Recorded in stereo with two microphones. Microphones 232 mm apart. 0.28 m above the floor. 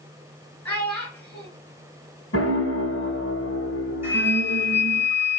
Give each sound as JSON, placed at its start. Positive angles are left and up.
{"t": 0.7, "sound": "a child speaking", "side_deg": 5, "distance_m": 3.0}
{"t": 2.3, "sound": "a piano", "side_deg": 65, "distance_m": 1.4}
{"t": 4.0, "sound": "a flute", "side_deg": -10, "distance_m": 2.5}